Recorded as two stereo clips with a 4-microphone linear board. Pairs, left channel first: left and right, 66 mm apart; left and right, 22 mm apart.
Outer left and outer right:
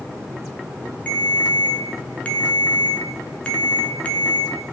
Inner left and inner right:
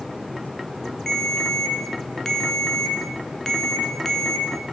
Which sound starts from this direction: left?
A ringtone, at 1.1 s.